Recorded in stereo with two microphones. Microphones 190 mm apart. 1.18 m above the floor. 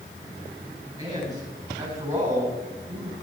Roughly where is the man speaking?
Right.